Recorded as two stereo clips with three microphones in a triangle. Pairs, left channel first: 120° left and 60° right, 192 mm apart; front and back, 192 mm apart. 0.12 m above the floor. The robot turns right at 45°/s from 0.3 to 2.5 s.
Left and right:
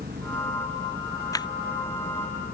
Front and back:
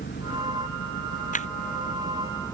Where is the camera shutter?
45° left; by 1.5 s 55° left.